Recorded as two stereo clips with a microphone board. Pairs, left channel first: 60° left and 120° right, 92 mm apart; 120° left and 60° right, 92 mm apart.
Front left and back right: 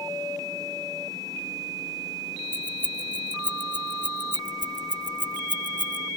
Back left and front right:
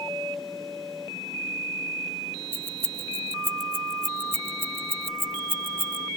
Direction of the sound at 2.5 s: 85° right.